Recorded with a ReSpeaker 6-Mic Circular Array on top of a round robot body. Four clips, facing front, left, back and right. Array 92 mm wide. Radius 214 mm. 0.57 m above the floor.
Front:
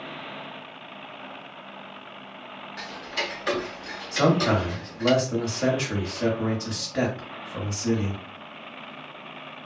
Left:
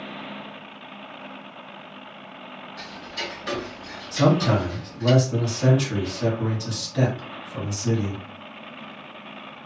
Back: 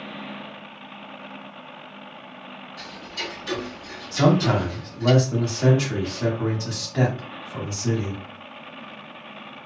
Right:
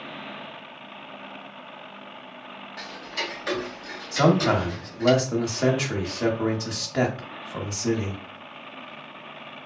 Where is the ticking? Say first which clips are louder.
Right 2 dB, front 4 dB; 25° right, 0.9 m.